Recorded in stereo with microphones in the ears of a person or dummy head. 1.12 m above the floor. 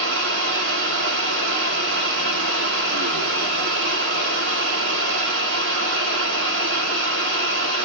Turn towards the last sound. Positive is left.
turn(degrees=-60)  # may be behind; listen again after turning